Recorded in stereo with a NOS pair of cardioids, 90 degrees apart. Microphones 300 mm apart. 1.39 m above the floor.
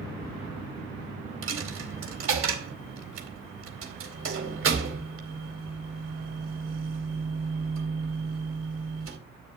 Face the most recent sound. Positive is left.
turn(degrees=-50)